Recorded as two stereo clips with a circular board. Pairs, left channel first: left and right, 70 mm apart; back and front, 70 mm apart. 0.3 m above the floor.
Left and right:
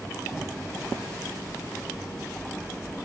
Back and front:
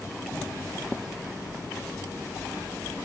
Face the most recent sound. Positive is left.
No sound to turn to.